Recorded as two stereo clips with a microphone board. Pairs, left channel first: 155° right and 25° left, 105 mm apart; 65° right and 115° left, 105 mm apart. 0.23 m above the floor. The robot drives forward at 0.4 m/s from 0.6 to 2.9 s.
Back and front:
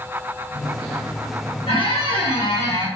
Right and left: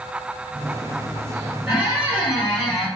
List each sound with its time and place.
1.7 s a squeak: 170° right, 1.9 m